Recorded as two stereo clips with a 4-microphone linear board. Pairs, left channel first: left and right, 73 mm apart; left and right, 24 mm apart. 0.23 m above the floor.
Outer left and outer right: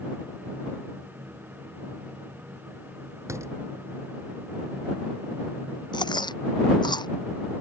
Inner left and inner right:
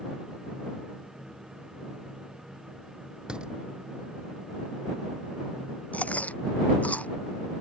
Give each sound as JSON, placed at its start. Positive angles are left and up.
{"t": 3.3, "sound": "a door slam", "side_deg": -40}
{"t": 5.9, "sound": "chewing", "side_deg": 85}